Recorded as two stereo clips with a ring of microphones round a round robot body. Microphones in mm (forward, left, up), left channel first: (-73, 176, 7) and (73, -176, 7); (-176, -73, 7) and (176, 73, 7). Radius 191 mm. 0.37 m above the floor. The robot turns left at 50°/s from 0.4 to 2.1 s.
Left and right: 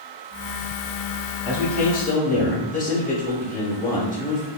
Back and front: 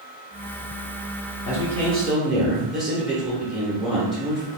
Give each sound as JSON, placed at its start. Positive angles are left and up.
{"t": 1.4, "sound": "a man speaking", "azimuth_deg": 140, "distance_m": 1.0}